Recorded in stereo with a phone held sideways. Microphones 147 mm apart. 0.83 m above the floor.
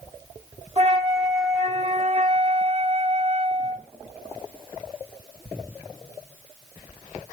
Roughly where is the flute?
Right.